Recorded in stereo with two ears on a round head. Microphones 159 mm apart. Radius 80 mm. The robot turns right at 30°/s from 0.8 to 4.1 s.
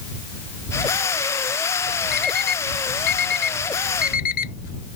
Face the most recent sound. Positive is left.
turn(degrees=60)  # may be behind; listen again after turning